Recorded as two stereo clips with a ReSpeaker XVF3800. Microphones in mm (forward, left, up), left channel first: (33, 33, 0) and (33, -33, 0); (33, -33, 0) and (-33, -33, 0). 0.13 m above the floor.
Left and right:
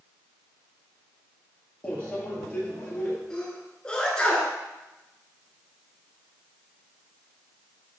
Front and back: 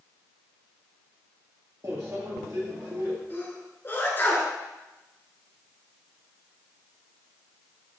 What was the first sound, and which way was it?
A microwave, 155° left.